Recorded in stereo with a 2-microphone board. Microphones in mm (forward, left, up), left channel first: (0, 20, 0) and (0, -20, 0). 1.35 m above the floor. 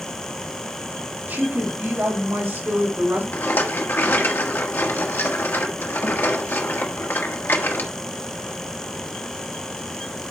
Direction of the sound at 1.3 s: 60° right (ahead or behind).